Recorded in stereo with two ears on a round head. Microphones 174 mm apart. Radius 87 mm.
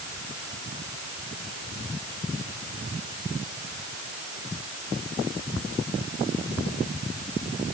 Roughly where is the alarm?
No alarm in this recording.